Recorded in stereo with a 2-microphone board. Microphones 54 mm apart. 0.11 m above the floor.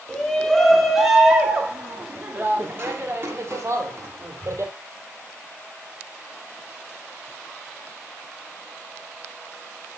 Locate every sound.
0.1 s a shout: 15° left (ahead or behind), 1.3 m; by 4.7 s 60° right (ahead or behind), 2.5 m